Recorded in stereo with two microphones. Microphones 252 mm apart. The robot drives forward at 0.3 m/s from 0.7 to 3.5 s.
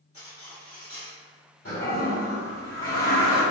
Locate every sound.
0.1 s cutlery clinking: 60° left (ahead or behind), 1.9 m; by 1.2 s 65° left (ahead or behind), 1.8 m
1.6 s a toilet flushing: 60° left (ahead or behind), 1.8 m; by 3.4 s 50° left (ahead or behind), 2 m